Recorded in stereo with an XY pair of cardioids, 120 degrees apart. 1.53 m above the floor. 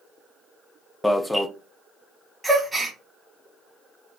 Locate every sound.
1.0 s an alarm: 10° left, 0.5 m
2.4 s a gasp: 10° right, 1.1 m